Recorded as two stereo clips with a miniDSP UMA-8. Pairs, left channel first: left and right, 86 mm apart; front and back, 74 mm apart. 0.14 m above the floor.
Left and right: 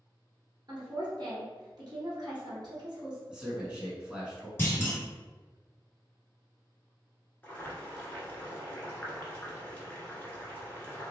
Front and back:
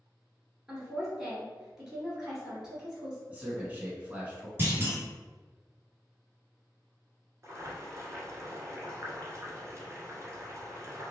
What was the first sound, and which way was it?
A woman speaking, 100° right.